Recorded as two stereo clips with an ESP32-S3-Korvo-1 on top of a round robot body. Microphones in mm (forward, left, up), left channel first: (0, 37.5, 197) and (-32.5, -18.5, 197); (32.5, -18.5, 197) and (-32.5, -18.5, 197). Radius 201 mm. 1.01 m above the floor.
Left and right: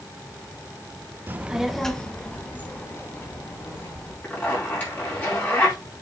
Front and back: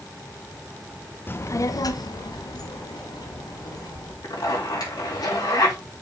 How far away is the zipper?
About 4 m.